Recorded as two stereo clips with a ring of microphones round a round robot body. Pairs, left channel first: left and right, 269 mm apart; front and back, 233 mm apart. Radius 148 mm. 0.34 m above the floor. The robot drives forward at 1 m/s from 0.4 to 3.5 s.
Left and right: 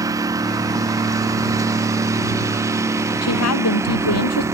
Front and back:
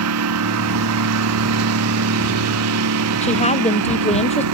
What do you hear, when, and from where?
0.0 s a lawn mower: 165° right; by 4.5 s 170° right
3.2 s a woman speaking: 60° left